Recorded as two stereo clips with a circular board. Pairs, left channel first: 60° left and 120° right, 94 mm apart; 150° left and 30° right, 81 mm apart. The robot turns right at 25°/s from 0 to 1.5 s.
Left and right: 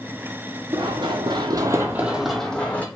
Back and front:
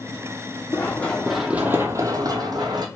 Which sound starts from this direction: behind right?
Running footsteps, at 0.7 s.